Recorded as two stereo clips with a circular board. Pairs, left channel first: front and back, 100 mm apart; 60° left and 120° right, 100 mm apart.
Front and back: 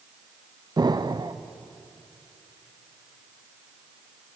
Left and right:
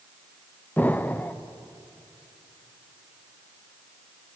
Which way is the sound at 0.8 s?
135° left.